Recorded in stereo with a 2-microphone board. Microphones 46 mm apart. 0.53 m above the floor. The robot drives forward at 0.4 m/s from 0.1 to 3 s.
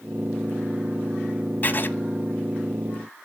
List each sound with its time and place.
1.6 s writing: 40° left (ahead or behind), 0.5 m; by 1.9 s 45° left (ahead or behind), 0.5 m